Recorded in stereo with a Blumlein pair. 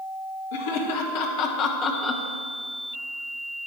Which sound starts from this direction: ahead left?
Laughter, at 0.5 s.